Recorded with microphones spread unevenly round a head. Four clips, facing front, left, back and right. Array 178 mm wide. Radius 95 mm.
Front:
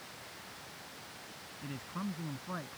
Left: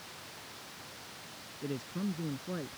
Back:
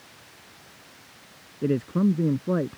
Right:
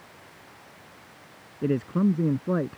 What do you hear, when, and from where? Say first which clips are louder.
1.6 s a man speaking: right 13 dB, back 18 dB; 140° right